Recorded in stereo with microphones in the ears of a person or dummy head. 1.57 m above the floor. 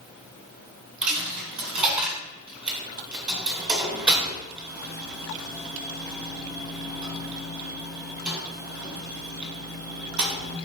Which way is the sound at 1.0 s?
5° right (ahead or behind).